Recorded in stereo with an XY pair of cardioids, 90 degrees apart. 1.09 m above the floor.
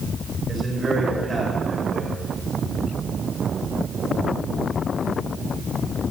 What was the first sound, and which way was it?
A man speaking, 35° right.